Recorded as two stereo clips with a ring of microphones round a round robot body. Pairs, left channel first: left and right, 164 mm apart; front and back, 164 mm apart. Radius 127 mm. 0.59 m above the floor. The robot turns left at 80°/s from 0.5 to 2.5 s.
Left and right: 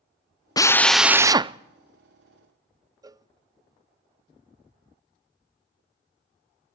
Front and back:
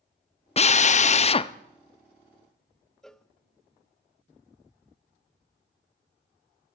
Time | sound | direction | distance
0.6 | a drill | 30° left | 0.6 m
3.0 | a cowbell | 80° right | 0.7 m